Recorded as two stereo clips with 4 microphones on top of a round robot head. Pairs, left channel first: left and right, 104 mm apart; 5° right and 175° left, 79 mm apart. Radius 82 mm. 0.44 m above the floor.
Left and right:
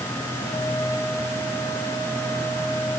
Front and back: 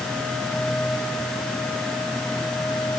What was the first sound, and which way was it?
Only background noise.